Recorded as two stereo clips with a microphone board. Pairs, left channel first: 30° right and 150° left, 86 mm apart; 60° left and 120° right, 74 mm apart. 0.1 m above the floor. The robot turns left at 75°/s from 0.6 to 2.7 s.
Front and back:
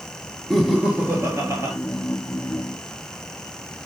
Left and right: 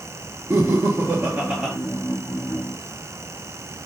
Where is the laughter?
120° right, 1.5 m; by 1.7 s 155° left, 1.5 m.